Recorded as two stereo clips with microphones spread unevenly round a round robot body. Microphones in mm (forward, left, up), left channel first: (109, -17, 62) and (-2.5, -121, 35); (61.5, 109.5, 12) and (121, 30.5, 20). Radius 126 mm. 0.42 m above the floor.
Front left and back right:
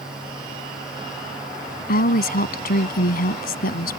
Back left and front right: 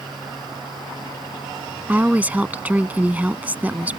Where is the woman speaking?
20° left.